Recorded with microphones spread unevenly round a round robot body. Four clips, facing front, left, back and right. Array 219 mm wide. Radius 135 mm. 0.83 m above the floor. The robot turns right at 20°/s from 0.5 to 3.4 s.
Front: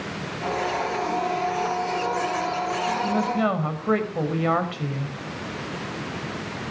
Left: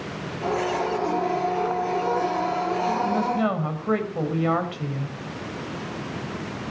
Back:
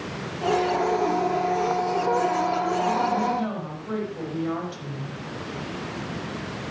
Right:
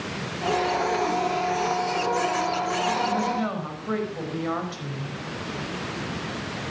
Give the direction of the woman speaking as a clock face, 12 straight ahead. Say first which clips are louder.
Left 2 dB, front 1 dB; 12 o'clock.